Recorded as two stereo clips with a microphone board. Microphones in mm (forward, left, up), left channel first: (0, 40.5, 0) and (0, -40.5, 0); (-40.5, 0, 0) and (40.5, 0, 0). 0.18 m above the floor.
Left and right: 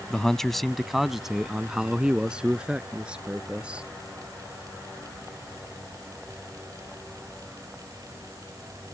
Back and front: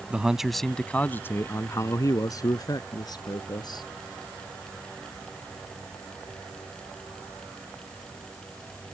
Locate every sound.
0.1 s a man speaking: 30° left; by 3.9 s 165° right